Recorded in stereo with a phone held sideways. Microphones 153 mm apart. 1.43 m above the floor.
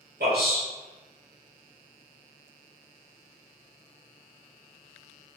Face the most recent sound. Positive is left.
turn(degrees=-70)  # may be behind; listen again after turning